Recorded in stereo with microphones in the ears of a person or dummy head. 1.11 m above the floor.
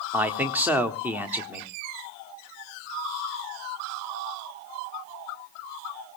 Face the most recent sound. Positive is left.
turn(degrees=-5)  # may be behind; listen again after turning